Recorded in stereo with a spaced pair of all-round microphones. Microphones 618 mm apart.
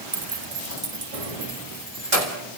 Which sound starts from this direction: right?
Keys jangling, at 0.1 s.